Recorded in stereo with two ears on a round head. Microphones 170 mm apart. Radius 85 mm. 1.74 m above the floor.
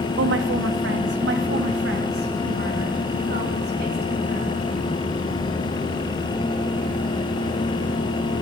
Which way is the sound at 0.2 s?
70° right (ahead or behind).